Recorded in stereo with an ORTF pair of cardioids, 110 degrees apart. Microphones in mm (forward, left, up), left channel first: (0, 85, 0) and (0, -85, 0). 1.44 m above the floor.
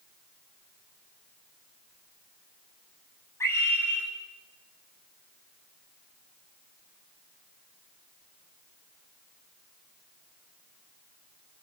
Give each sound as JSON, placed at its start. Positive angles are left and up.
{"t": 3.4, "sound": "a scream", "azimuth_deg": 15, "distance_m": 8.0}